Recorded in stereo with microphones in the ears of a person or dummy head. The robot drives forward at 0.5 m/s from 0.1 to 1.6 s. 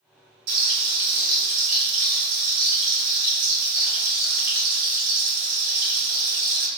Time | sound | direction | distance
0.5 | frying | 55° right (ahead or behind) | 1.9 m